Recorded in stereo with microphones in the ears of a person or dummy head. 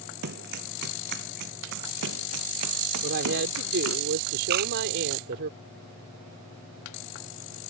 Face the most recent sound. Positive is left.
turn(degrees=-55)  # may be behind; listen again after turning